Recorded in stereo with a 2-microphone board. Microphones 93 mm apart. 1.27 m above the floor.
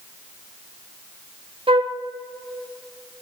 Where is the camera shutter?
No camera shutter in this recording.